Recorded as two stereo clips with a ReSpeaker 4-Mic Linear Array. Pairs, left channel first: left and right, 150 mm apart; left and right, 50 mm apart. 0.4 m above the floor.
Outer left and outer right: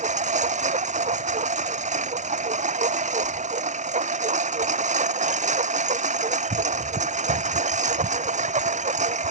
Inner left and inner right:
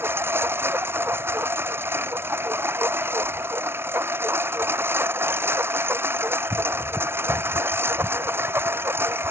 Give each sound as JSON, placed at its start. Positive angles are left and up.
{"t": 0.0, "sound": "a lawn mower", "side_deg": -50}